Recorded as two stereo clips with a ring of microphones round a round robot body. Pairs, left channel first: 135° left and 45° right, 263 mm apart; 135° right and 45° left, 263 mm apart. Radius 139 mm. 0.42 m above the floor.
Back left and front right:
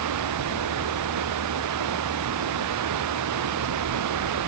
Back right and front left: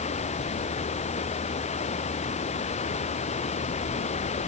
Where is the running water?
70° right.